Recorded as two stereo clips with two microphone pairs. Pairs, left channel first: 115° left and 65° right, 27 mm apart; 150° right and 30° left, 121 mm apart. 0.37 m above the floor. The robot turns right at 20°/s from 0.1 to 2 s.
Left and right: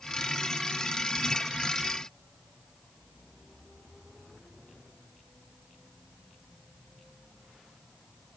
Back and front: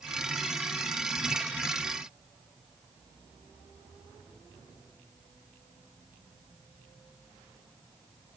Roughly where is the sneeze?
No sneeze in this recording.